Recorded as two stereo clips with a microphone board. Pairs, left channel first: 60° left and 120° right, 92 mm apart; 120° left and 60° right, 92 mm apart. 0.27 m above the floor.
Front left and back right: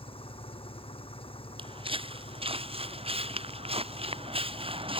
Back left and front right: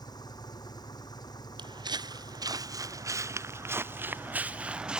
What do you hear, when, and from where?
0.0 s an engine running: 75° left
1.6 s footsteps: 95° right; by 5.0 s 140° right